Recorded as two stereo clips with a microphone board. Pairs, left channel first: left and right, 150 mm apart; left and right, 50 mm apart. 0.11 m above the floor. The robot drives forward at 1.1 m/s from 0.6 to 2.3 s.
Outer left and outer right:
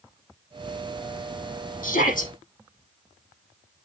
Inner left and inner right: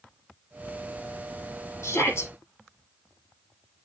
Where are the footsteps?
No footsteps in this recording.